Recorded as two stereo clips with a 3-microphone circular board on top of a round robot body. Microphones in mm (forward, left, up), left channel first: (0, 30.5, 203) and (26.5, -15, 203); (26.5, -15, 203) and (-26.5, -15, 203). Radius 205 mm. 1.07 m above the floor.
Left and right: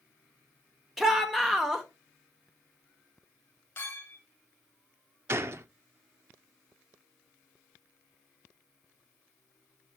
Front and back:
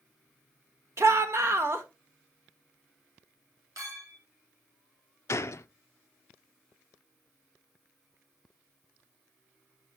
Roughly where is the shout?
Behind right.